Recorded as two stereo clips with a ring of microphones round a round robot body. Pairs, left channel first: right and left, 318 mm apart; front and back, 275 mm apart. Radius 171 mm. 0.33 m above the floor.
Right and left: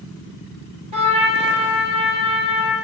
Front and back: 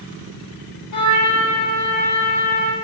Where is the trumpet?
15° left, 5.5 m.